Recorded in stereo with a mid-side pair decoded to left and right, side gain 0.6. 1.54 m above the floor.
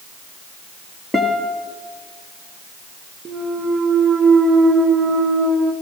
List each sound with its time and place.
1.1 s a guitar: 10° left, 2 m
3.2 s a clunk: 30° right, 1.7 m